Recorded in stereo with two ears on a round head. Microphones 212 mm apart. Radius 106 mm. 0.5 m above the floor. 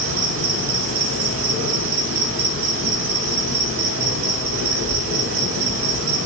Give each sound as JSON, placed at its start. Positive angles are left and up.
{"t": 0.0, "sound": "an insect", "side_deg": -60, "distance_m": 0.8}